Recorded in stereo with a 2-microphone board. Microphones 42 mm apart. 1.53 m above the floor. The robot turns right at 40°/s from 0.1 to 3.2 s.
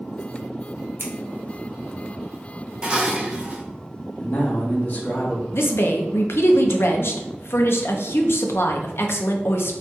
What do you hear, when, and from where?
1.0 s scissors: 65° right (ahead or behind), 0.6 m; by 1.1 s 70° right (ahead or behind), 0.6 m
2.8 s dishes clattering: 20° right (ahead or behind), 0.6 m; by 3.6 s 25° right (ahead or behind), 0.6 m
4.2 s a man speaking: 45° left (ahead or behind), 1.4 m
5.5 s a woman speaking: 65° left (ahead or behind), 0.5 m